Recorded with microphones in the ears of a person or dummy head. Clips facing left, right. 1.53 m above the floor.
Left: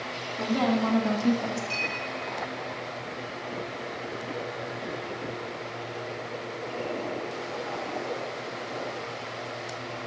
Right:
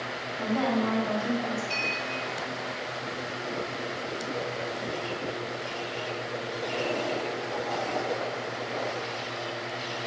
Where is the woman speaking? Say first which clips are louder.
Left 1 dB; 50° left (ahead or behind), 0.7 m; by 1.6 s 60° left (ahead or behind), 0.5 m.